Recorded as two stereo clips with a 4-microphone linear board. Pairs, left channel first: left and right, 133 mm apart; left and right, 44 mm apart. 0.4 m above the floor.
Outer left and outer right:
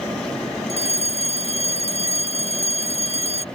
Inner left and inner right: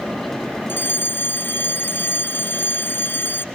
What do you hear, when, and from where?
0.7 s a fire alarm: 50° left (ahead or behind)